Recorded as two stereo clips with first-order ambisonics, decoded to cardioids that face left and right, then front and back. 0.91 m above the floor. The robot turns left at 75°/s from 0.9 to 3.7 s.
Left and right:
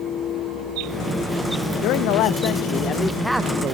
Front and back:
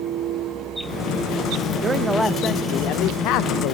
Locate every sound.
1.8 s a man speaking: 115° left, 0.5 m; by 3.8 s 30° right, 0.5 m